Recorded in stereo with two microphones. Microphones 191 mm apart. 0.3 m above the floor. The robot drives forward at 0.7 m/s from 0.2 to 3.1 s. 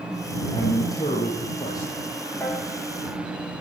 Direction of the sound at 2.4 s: 15° left (ahead or behind).